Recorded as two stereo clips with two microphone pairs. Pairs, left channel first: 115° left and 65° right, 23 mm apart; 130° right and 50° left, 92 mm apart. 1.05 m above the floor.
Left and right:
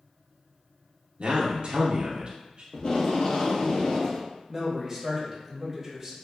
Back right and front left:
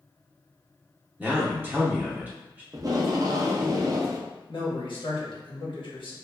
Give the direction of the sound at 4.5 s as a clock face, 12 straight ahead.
5 o'clock.